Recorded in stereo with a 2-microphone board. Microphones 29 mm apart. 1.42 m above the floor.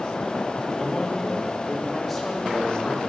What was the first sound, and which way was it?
A man speaking, 5° left (ahead or behind).